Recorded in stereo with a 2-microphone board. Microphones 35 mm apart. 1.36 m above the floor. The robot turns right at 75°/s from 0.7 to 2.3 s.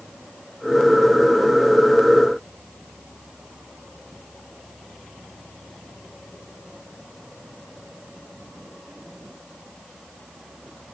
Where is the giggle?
I don't hear a giggle.